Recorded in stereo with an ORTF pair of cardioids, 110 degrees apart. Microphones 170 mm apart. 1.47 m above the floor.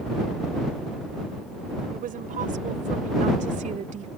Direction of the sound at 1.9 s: 55° right.